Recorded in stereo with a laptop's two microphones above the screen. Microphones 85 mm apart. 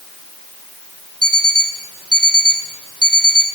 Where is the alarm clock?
60° right (ahead or behind), 2.0 m.